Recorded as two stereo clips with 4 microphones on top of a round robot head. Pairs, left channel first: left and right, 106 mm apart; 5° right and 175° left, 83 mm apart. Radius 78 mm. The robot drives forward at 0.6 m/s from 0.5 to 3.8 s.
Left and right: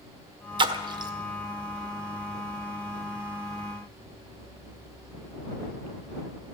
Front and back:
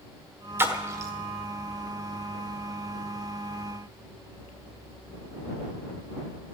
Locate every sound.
0.6 s a splash: 125° right, 1.4 m; by 1.1 s 135° right, 1.5 m